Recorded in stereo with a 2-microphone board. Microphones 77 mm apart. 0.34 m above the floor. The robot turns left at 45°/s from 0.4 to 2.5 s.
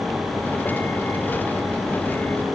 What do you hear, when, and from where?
Only background noise.